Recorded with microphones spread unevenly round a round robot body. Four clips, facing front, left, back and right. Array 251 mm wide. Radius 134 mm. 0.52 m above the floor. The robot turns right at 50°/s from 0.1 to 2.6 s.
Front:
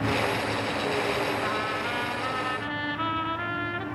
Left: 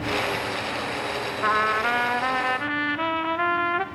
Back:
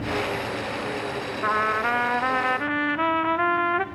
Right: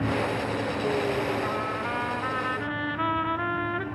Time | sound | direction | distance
1.4 | a trumpet | 115° left | 1.0 m